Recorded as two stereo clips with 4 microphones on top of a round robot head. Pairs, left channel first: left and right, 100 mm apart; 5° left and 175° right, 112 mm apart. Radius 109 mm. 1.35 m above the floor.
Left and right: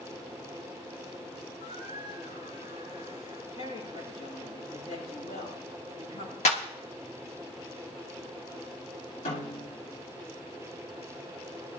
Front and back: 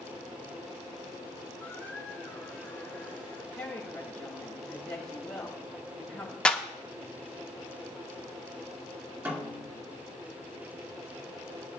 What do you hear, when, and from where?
1.6 s a squeak: 80° left, 7.5 m
3.5 s a woman speaking: 85° left, 7 m
6.5 s a clap: 90° left, 1.5 m
9.2 s a snare drum: 115° left, 2.5 m